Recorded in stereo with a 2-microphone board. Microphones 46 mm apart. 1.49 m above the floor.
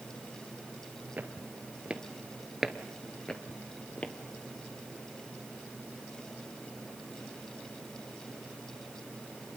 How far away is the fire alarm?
No fire alarm in this recording.